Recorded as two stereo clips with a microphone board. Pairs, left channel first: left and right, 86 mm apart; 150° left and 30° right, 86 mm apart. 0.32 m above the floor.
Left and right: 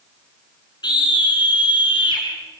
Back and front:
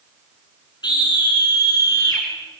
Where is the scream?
120° left, 4.5 m; by 2.2 s 105° left, 6 m.